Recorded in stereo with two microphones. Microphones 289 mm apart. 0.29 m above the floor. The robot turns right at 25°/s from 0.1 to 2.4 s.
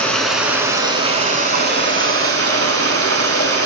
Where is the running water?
175° left, 0.8 m; by 3.7 s 125° right, 0.8 m.